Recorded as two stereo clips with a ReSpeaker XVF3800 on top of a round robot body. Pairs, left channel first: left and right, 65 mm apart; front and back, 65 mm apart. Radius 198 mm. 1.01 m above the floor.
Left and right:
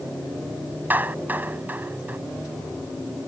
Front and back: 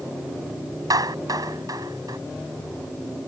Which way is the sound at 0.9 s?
155° right.